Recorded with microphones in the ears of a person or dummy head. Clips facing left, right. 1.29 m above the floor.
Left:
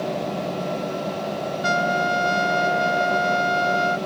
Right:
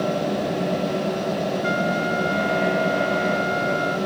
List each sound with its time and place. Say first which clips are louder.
1.6 s a trumpet: even; 70° left (ahead or behind)